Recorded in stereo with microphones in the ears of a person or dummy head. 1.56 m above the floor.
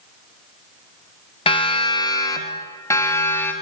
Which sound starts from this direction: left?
A siren, at 1.5 s.